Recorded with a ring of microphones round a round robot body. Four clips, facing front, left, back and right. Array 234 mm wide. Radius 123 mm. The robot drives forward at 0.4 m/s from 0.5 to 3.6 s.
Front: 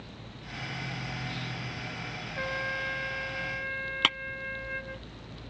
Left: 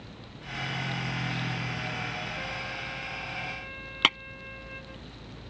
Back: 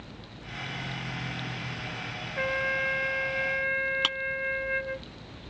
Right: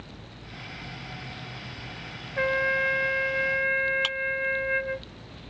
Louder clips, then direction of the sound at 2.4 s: Right 12 dB, back 5 dB; 105° right.